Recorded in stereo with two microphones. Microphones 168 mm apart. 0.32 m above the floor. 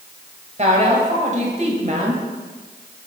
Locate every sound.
0.6 s a woman speaking: 45° right (ahead or behind), 1.3 m